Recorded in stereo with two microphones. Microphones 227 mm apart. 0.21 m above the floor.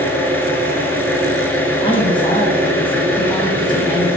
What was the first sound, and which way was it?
An engine running, 10° left (ahead or behind).